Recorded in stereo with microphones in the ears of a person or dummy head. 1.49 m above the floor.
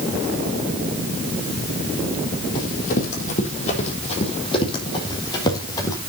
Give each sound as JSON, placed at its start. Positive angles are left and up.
{"t": 2.5, "sound": "running footsteps", "side_deg": 50, "distance_m": 4.0}